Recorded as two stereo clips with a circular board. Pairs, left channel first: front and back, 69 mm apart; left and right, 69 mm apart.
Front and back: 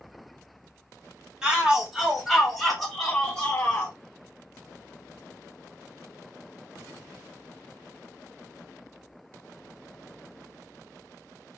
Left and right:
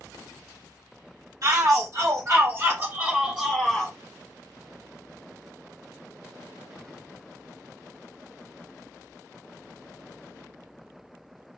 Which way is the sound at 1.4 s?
105° right.